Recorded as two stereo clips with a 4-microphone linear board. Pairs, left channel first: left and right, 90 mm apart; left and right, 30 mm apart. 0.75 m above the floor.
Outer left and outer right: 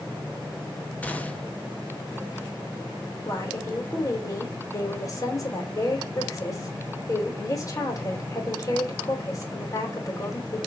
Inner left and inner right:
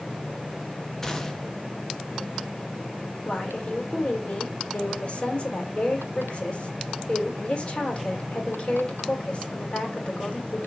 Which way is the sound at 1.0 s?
15° left (ahead or behind).